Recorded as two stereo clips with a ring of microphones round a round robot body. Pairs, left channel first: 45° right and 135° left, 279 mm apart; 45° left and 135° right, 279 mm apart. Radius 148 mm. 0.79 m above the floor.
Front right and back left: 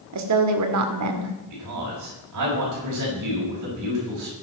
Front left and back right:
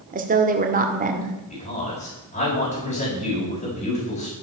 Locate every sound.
0.1 s a woman speaking: 165° left, 2.5 m
1.5 s a man speaking: 105° left, 6.5 m